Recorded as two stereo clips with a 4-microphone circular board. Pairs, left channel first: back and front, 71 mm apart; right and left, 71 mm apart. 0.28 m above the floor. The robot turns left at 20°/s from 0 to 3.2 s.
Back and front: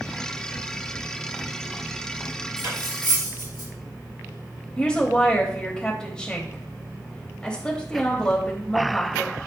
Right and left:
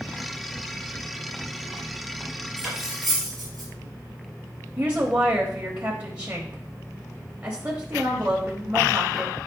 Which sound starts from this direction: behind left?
A woman speaking, at 4.8 s.